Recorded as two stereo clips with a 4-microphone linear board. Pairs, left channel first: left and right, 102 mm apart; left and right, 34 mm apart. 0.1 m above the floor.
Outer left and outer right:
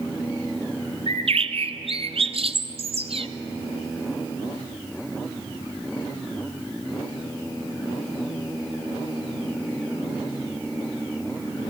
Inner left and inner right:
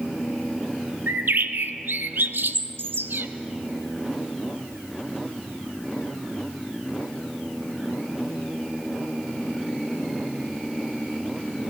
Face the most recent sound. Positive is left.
turn(degrees=-70)  # may be behind; listen again after turning